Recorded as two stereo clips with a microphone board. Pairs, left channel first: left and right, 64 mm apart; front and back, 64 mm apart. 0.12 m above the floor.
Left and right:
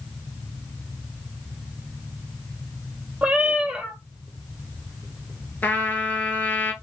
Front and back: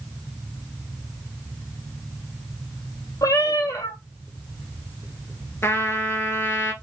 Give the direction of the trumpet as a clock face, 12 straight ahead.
11 o'clock.